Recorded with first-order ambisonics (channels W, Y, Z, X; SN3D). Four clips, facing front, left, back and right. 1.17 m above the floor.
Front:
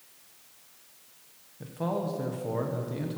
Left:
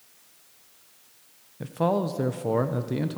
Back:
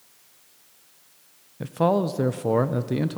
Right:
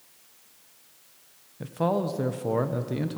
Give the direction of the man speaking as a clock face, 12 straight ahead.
6 o'clock.